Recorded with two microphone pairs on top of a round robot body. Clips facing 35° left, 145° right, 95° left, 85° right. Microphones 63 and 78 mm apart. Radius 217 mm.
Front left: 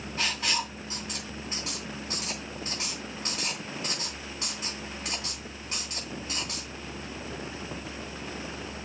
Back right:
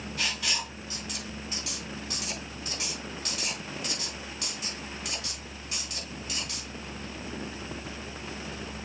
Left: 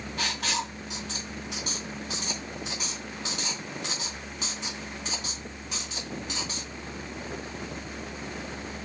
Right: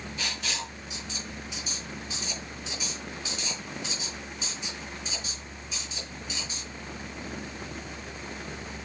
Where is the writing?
100° left, 3 m.